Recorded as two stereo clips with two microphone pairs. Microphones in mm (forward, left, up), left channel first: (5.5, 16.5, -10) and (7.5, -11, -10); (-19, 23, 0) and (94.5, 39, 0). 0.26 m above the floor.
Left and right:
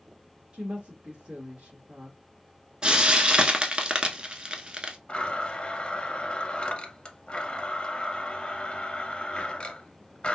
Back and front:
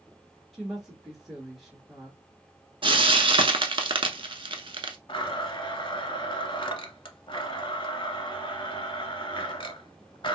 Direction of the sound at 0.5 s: 80° right.